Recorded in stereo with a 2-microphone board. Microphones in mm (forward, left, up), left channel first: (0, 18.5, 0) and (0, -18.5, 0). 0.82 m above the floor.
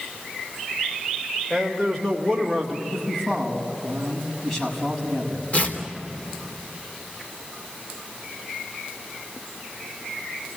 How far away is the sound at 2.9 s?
About 6 m.